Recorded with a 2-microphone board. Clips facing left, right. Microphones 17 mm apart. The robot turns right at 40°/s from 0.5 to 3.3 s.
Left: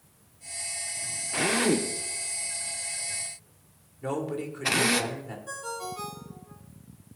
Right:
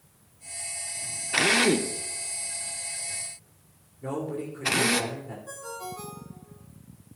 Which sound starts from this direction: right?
A drill, at 1.3 s.